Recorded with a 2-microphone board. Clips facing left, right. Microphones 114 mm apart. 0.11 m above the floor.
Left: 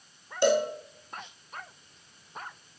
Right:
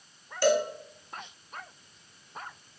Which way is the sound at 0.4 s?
20° left (ahead or behind).